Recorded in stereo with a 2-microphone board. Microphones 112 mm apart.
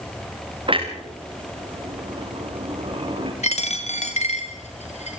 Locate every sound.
0.7 s a clunk: 50° right (ahead or behind), 5 m
3.4 s a dropped coin: 80° left, 3.5 m